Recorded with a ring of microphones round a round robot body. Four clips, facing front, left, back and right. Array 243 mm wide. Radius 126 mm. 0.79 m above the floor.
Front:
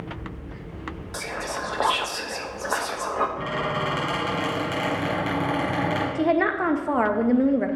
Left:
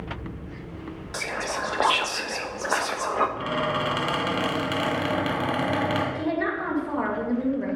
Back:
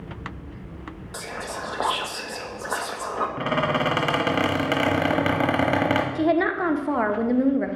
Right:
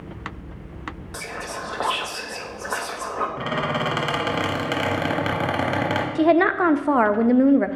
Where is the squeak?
165° right, 1.0 m.